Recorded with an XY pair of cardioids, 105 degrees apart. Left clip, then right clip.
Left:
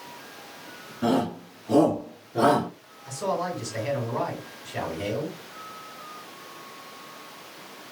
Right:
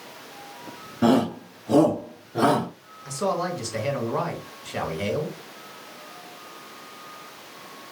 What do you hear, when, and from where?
1.0 s a shout: 50° right, 0.7 m; by 2.7 s 10° right, 1.8 m
3.0 s a man speaking: 50° right, 2.5 m